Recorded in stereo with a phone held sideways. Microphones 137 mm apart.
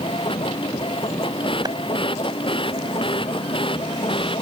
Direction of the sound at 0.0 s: 40° left (ahead or behind).